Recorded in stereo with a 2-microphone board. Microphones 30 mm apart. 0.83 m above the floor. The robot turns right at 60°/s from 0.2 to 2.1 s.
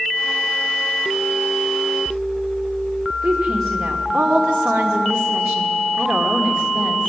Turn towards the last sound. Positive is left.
turn(degrees=-75)  # may be behind; listen again after turning